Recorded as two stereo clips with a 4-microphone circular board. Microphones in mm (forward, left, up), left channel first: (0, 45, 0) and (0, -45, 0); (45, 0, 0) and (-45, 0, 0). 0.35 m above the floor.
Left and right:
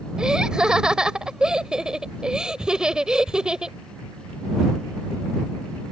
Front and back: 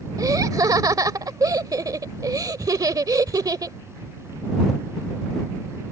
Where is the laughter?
170° right.